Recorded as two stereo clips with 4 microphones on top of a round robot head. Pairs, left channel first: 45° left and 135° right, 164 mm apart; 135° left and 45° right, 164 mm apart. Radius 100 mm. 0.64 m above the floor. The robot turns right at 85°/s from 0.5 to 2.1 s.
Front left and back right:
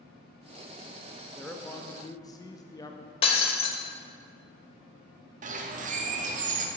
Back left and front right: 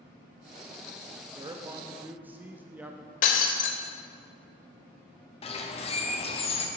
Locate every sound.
1.4 s a man speaking: 45° right, 0.6 m; by 3.1 s 20° left, 0.6 m
3.2 s breaking glass: 100° left, 0.6 m
5.4 s a bird: 175° right, 0.8 m